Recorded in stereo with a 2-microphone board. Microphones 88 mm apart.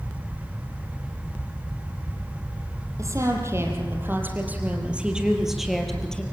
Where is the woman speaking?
40° right (ahead or behind), 5 m; by 6.2 s 10° left (ahead or behind), 4 m.